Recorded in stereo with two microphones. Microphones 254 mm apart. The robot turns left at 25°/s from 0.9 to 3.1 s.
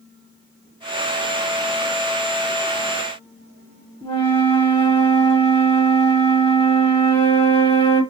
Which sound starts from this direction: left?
A flute, at 4.0 s.